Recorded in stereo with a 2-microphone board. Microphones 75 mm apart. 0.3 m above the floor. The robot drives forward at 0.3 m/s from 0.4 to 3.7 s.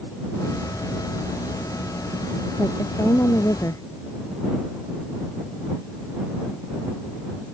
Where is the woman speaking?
50° left (ahead or behind).